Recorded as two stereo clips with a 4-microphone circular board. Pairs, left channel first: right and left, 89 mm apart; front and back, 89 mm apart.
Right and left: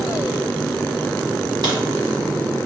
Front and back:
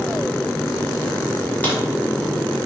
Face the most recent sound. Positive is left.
turn(degrees=65)